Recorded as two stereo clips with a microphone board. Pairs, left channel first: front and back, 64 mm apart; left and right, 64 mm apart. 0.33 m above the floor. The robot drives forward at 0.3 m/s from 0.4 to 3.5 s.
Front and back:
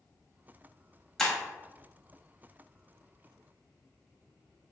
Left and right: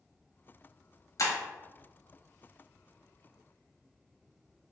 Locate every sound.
1.2 s breaking glass: 80° left, 1.2 m; by 1.4 s 85° left, 1.2 m